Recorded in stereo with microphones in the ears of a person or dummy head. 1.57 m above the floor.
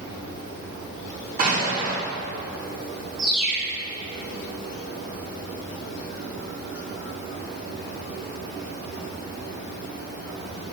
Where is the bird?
45° right (ahead or behind), 4.5 m.